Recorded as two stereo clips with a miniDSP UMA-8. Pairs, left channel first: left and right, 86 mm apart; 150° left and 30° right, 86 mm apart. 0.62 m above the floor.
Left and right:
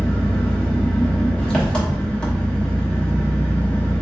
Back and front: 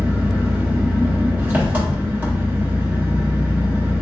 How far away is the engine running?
About 0.8 m.